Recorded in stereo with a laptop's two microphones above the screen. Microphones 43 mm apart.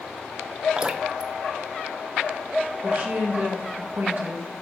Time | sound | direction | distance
0.8 | dripping | 20° right (ahead or behind) | 0.6 m
2.8 | a woman speaking | 45° right (ahead or behind) | 1.6 m